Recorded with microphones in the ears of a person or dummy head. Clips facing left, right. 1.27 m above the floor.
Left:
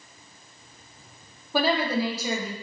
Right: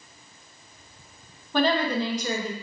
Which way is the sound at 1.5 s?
5° left (ahead or behind).